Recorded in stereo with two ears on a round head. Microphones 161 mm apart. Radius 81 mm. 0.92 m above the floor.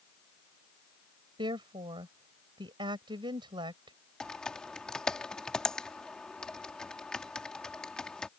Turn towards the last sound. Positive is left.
turn(degrees=5)  # may be behind; listen again after turning